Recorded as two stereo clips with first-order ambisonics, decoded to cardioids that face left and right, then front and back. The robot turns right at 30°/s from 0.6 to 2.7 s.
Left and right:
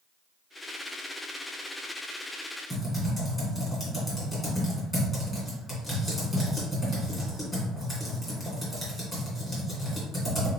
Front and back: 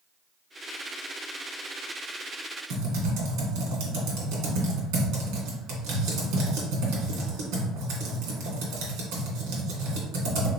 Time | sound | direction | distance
2.7 | typing on a keyboard | 165° left | 2.0 m